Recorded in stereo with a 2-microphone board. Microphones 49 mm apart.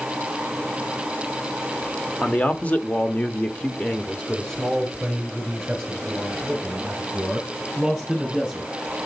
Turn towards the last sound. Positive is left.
turn(degrees=0)  # may be behind; listen again after turning